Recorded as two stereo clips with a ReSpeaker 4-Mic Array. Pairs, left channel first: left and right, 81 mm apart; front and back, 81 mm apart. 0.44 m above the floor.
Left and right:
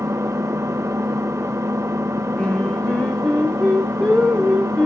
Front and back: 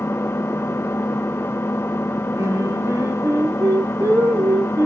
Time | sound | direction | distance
0.0 | an engine running | 50° right | 0.7 m
2.4 | singing | 155° left | 1.8 m